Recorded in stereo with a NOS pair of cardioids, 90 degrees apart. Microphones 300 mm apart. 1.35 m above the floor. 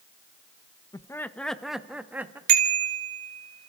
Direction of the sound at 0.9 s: 15° left.